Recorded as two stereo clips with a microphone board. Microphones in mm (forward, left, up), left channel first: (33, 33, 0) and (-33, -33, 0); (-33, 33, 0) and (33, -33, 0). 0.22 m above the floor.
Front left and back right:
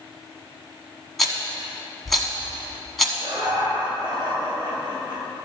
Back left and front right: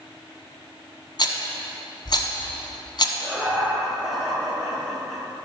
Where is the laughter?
130° right, 3 m.